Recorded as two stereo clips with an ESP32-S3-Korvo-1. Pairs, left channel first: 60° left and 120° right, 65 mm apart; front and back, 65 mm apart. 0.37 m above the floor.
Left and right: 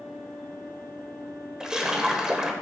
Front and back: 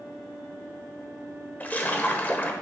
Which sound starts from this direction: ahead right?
A splash, at 1.6 s.